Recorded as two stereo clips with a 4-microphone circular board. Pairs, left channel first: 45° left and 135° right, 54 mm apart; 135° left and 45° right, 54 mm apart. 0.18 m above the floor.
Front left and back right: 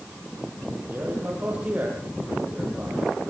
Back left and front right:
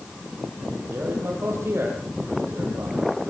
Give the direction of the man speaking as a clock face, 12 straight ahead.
3 o'clock.